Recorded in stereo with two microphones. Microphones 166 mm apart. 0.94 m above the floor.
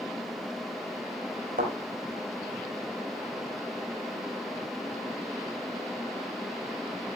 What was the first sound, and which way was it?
A thud, 60° right (ahead or behind).